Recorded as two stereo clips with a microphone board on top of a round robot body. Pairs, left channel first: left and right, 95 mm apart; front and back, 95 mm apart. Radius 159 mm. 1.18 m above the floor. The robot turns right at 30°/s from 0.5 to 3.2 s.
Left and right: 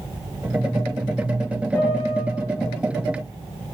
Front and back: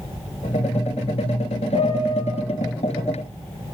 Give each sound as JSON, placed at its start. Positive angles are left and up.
{"t": 1.7, "sound": "a piano", "azimuth_deg": 20, "distance_m": 3.5}